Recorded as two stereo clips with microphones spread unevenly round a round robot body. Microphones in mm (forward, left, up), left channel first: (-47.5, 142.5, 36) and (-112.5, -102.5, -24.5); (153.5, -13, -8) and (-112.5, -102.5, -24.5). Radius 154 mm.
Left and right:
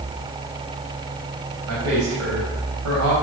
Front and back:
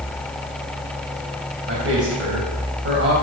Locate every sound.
1.7 s a man speaking: 115° right, 3.5 m